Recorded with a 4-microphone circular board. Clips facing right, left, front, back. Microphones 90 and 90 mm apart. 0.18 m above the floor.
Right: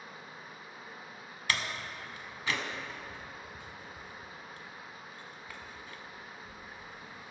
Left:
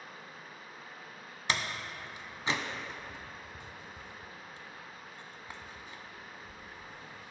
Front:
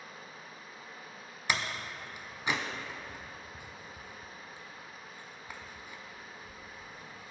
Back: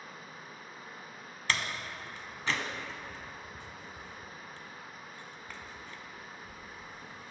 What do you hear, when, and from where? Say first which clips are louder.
0.0 s running water: right 1 dB, back 1 dB; 155° right, 1.3 m
1.5 s a door slam: left 1 dB, even; 60° left, 0.7 m